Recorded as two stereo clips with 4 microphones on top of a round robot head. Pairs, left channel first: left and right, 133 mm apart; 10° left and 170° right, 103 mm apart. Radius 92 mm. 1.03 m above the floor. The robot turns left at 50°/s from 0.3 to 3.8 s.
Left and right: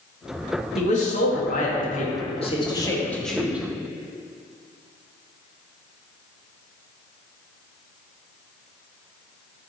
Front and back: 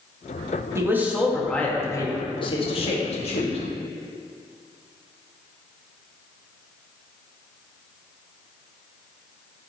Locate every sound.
0.8 s a man speaking: 130° left, 2 m; by 3.6 s 10° right, 2 m